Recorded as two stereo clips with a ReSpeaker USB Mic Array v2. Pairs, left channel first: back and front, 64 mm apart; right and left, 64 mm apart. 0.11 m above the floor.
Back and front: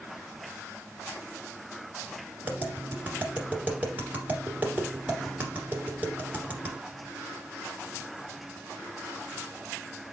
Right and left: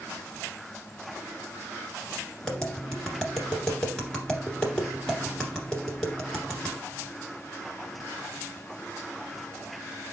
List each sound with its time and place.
2.4 s tapping: 20° right, 1.8 m